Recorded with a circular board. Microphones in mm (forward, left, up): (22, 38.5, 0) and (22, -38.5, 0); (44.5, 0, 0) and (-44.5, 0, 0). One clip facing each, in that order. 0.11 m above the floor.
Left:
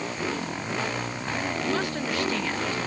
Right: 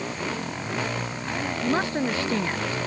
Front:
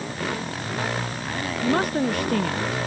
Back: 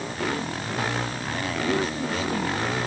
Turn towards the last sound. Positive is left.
turn(degrees=-25)